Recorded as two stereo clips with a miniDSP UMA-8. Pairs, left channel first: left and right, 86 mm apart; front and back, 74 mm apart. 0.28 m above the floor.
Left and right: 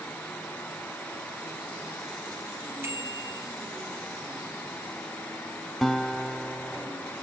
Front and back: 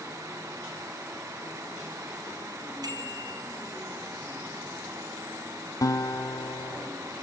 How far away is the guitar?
About 1.0 m.